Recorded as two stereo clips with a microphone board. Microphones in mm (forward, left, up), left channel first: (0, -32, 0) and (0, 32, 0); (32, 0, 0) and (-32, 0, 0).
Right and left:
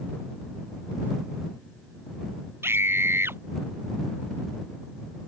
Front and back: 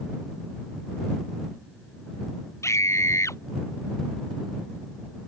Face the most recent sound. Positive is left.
turn(degrees=40)